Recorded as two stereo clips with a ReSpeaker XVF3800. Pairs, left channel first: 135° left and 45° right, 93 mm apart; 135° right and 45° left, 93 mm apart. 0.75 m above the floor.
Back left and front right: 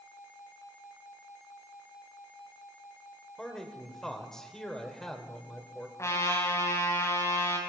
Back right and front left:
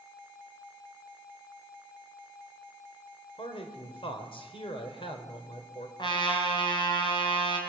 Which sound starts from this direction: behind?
A trumpet, at 6.0 s.